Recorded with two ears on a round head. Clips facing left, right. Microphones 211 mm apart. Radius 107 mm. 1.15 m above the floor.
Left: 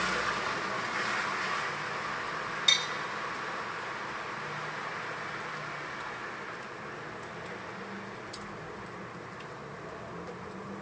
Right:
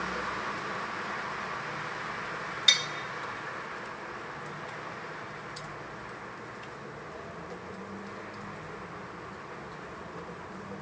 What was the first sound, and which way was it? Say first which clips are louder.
Tapping: even; 20° right (ahead or behind).